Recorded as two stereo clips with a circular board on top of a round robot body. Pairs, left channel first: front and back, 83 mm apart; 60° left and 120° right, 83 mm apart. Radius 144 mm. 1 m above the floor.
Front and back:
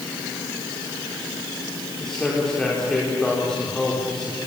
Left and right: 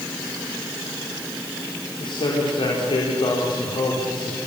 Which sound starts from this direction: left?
A man speaking, at 2.0 s.